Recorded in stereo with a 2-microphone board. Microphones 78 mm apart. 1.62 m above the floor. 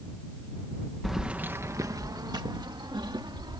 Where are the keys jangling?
Centre (ahead or behind); by 3.6 s 75° right (ahead or behind).